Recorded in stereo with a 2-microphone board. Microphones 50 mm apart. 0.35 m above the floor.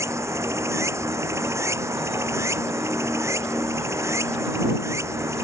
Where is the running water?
75° right (ahead or behind).